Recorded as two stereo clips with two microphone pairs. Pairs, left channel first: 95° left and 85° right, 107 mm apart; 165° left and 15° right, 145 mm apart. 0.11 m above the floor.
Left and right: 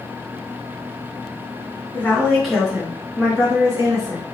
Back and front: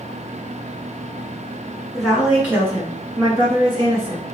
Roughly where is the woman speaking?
Left.